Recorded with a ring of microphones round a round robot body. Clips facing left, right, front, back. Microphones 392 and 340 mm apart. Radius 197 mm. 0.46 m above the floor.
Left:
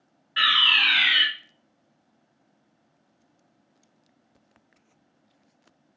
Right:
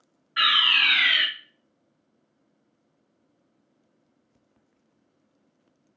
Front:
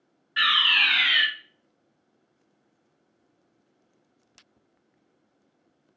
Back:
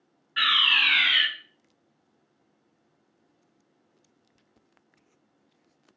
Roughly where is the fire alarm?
Ahead left.